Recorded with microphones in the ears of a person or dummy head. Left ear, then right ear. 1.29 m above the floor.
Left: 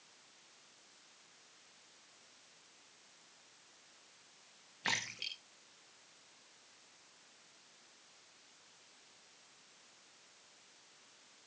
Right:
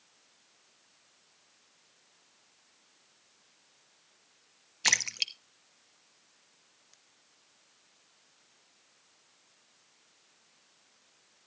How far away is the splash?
About 1.1 m.